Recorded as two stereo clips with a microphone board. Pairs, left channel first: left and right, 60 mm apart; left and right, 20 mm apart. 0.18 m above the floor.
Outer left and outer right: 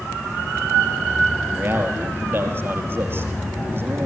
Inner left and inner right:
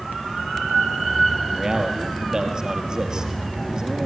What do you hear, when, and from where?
1.5 s a man speaking: 40° right (ahead or behind), 4 m